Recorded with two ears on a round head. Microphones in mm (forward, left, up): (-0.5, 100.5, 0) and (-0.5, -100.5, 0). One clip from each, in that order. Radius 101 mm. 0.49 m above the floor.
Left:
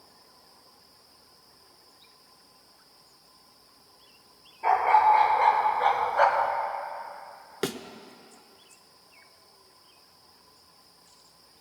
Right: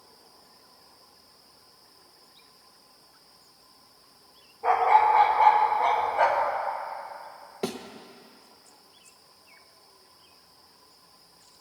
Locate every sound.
4.6 s a dog barking: 75° left (ahead or behind), 3.5 m; by 6.5 s 55° left (ahead or behind), 1.8 m
7.6 s a thud: 65° left (ahead or behind), 0.9 m